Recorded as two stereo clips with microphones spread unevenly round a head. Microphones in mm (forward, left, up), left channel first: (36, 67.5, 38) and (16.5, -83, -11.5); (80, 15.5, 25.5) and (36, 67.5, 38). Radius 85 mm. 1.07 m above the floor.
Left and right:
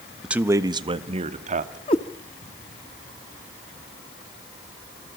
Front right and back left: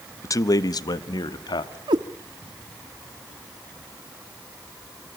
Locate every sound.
0.2 s a man speaking: 15° right, 1.1 m; by 1.8 s 65° right, 2.5 m
1.9 s a cat meowing: 135° left, 1.2 m